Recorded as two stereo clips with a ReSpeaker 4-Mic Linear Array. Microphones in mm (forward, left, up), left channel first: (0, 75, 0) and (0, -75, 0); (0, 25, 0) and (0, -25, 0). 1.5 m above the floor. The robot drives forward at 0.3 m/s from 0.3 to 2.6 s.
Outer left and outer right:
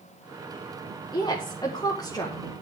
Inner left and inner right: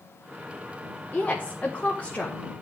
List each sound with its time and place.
1.1 s a woman speaking: 30° left (ahead or behind), 1.5 m; by 2.4 s 25° left (ahead or behind), 1.9 m